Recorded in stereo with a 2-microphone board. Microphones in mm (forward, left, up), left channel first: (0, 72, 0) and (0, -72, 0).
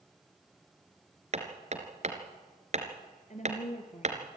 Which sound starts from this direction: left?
A woman speaking, at 3.3 s.